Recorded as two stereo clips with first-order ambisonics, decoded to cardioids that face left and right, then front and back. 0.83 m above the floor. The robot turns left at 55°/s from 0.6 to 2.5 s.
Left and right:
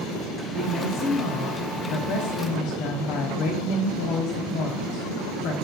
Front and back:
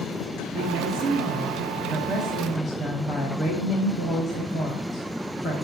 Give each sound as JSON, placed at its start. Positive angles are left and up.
{"t": 0.5, "sound": "a woman speaking", "azimuth_deg": 160, "distance_m": 1.4}